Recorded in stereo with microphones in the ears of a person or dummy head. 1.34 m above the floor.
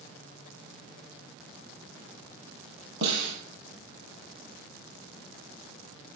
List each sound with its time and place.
3.0 s a snare drum: 75° right (ahead or behind), 5.5 m